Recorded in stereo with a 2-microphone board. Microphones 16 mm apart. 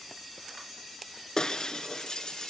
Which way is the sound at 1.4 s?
45° left (ahead or behind).